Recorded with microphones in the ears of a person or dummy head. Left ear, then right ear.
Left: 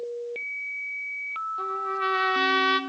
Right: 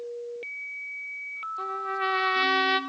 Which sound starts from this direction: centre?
A trumpet, at 1.6 s.